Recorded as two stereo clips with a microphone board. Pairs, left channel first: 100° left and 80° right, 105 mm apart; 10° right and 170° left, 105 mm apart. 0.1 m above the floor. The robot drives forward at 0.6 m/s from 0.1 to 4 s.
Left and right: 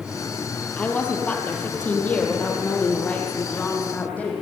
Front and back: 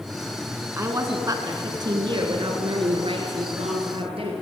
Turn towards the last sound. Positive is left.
turn(degrees=175)